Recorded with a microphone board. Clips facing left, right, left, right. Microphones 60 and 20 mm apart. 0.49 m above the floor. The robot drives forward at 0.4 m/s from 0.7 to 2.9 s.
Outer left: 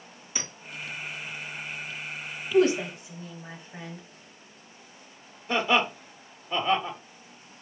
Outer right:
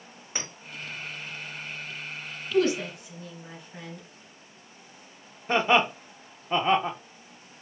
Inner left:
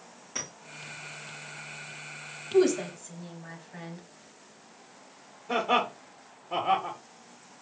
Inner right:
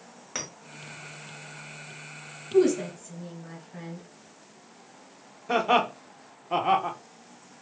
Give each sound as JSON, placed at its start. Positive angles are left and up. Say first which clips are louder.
{"t": 0.3, "sound": "a clink", "louder": "outer right 1 dB, inner right 1 dB", "side_deg": -40, "distance_m": 1.6}
{"t": 2.5, "sound": "a woman speaking", "louder": "outer left 2 dB, inner right 2 dB", "side_deg": 25, "distance_m": 0.9}
{"t": 5.5, "sound": "laughter", "louder": "outer right 2 dB, inner right 3 dB", "side_deg": -30, "distance_m": 0.8}